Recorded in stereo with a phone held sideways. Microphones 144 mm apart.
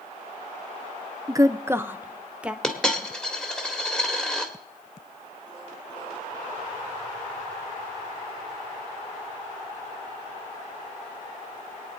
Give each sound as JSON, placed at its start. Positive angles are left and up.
{"t": 1.3, "sound": "a woman speaking", "side_deg": -25, "distance_m": 0.6}
{"t": 2.6, "sound": "a dropped coin", "side_deg": 5, "distance_m": 1.8}